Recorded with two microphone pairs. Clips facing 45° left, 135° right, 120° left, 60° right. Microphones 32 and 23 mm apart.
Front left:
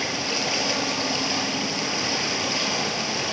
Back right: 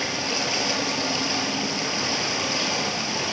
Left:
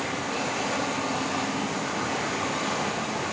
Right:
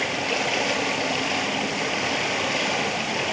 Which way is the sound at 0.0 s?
40° right.